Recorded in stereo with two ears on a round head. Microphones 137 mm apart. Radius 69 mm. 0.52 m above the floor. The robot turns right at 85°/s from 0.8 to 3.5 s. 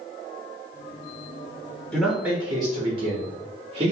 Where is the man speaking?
165° left, 0.8 m; by 3.9 s 60° right, 0.8 m.